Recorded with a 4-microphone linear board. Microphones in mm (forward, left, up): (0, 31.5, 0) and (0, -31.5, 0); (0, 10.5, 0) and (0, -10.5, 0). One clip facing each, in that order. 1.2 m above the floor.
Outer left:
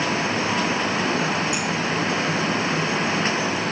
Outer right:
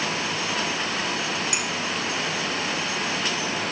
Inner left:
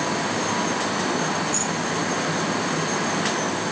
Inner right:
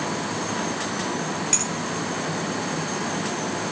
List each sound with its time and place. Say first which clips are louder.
1.5 s a clink: outer left 3 dB, even; 85° right, 6.5 m